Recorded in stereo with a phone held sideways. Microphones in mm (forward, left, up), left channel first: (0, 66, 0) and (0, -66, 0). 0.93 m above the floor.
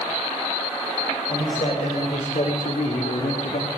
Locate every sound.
1.3 s a man speaking: 80° left, 3.5 m; by 3.7 s 75° left (ahead or behind), 1.4 m